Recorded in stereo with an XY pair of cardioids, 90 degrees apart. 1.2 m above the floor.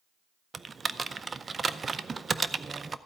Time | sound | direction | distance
0.5 | typing on a keyboard | 35° right | 0.5 m